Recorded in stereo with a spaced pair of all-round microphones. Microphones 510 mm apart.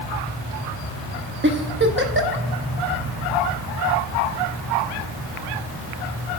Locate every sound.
1.4 s a giggle: 20° right (ahead or behind), 0.8 m